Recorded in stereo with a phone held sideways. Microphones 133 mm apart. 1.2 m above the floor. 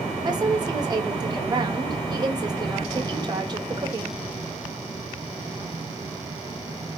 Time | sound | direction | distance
0.2 | a woman speaking | 30° right (ahead or behind) | 1.4 m